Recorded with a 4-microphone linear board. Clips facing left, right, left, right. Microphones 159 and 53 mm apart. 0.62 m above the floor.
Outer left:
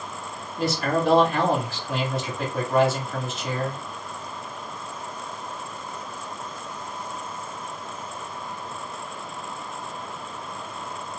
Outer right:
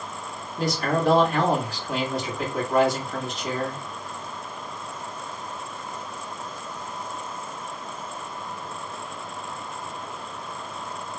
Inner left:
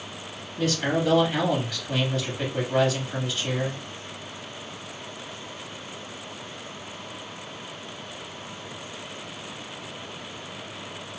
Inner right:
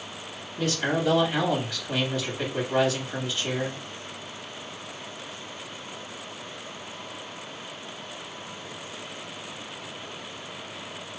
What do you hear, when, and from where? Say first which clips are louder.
0.6 s a man speaking: even, inner left 1 dB; centre (ahead or behind), 1.4 m